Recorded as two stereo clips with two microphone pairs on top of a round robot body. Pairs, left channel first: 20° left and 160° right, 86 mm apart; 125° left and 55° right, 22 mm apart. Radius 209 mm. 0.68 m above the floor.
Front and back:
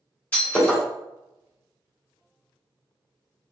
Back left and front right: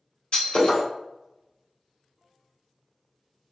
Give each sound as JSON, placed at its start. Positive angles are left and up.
{"t": 0.3, "sound": "breaking glass", "azimuth_deg": 90, "distance_m": 2.0}